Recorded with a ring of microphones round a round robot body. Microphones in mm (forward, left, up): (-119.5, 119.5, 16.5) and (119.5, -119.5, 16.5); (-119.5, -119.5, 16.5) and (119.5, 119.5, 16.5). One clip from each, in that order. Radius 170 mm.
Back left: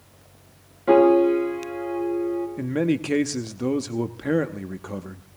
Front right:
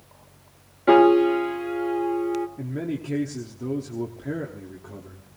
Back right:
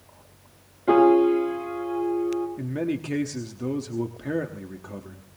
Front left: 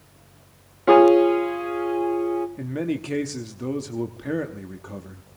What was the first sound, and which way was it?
A piano, 15° left.